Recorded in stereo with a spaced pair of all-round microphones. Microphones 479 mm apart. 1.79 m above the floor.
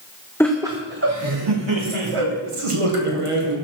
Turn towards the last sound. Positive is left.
turn(degrees=-80)